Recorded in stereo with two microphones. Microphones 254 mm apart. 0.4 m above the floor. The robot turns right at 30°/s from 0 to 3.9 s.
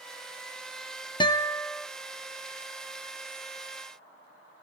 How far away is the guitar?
About 0.9 m.